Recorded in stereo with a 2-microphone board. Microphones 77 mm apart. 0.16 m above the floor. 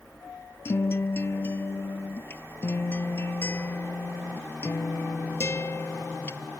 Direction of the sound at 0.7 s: 35° left (ahead or behind).